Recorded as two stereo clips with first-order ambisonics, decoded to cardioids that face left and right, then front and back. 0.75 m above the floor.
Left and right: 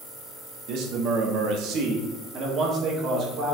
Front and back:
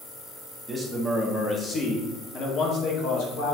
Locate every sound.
0.7 s a man speaking: 100° right, 1.5 m; by 3.6 s 35° right, 2.5 m